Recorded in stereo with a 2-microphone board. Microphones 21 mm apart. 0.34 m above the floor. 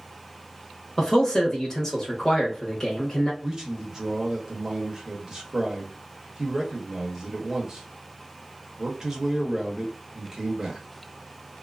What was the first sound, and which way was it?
A man speaking, 20° left (ahead or behind).